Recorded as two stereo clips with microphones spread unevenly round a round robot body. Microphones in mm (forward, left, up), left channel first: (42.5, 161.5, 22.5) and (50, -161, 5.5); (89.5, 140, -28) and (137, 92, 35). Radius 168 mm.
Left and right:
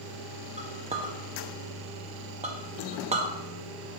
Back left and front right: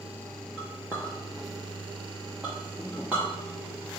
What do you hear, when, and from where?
0.6 s a clink: 155° right, 0.6 m